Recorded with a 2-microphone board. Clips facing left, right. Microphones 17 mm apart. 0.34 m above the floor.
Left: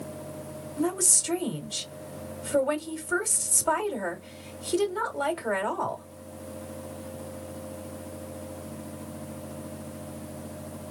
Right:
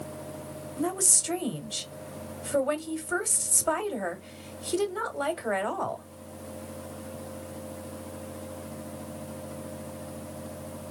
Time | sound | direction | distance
0.8 | a woman speaking | 5° right (ahead or behind) | 1.4 m